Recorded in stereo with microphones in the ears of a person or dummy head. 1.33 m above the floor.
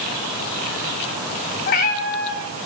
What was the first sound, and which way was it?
A cat meowing, 50° left (ahead or behind).